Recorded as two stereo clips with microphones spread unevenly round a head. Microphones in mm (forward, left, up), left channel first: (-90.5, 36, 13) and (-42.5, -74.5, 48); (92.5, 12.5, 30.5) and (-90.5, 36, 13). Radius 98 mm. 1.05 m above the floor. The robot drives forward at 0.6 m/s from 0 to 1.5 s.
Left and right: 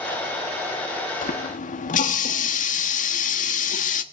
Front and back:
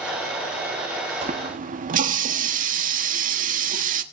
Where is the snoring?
I don't hear snoring.